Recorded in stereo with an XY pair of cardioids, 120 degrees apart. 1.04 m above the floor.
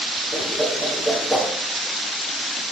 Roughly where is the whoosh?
Ahead.